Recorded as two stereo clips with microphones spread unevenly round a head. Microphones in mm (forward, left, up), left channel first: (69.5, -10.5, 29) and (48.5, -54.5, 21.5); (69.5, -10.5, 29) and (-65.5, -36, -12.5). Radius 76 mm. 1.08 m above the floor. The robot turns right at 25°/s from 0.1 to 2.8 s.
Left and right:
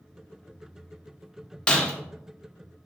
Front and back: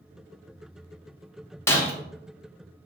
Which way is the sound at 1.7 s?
30° left.